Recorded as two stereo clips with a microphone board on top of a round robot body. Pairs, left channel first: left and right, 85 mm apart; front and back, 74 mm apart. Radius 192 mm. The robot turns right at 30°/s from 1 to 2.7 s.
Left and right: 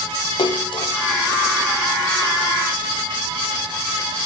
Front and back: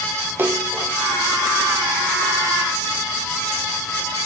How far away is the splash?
About 0.8 m.